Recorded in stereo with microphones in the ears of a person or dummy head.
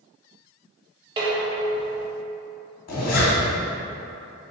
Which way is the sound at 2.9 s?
50° left (ahead or behind).